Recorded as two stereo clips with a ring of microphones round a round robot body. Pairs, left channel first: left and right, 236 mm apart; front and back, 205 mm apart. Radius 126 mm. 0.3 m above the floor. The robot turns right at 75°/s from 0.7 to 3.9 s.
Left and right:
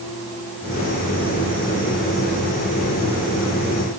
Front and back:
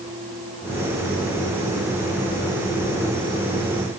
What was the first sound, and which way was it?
Only background noise.